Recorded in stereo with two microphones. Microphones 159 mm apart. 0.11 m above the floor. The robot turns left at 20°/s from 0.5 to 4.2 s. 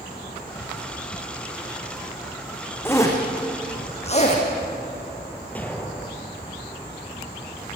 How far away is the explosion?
About 2.5 m.